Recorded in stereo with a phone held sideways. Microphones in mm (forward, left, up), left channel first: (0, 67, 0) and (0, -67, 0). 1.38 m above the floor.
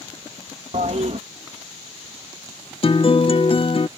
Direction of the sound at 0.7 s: 60° right (ahead or behind).